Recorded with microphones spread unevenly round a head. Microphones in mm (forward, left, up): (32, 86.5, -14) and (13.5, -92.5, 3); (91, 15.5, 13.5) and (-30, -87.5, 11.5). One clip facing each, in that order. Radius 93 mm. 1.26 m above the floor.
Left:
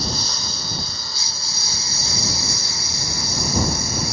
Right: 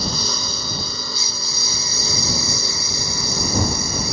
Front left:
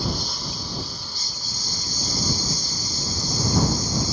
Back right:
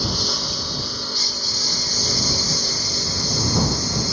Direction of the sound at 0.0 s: 115° right.